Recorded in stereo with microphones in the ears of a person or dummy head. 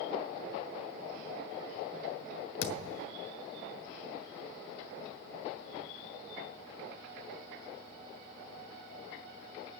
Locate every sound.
2.6 s a thud: 70° left (ahead or behind), 2.5 m